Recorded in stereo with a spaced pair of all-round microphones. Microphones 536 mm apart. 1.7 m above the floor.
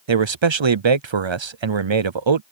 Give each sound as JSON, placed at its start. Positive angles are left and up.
{"t": 0.1, "sound": "a man speaking", "side_deg": -60}